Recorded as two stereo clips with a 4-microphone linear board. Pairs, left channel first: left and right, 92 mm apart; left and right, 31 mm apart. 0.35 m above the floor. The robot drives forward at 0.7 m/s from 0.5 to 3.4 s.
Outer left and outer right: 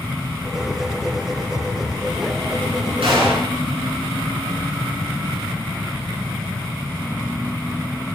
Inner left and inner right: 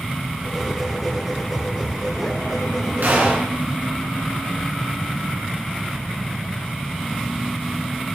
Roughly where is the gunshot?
Right.